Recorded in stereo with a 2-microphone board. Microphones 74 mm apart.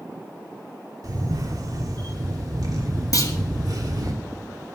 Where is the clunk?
55° left (ahead or behind), 1.8 m.